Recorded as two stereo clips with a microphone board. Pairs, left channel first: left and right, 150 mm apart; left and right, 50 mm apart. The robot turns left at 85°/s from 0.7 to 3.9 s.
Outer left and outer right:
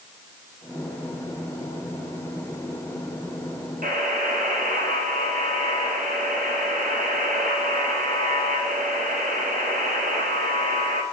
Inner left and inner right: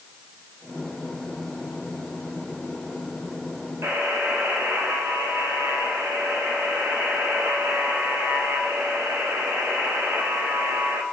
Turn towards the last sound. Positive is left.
turn(degrees=-75)  # may be behind; listen again after turning